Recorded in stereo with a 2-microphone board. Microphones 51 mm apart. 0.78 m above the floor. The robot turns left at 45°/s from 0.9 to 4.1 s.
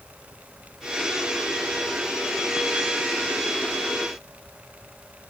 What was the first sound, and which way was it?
Only background noise.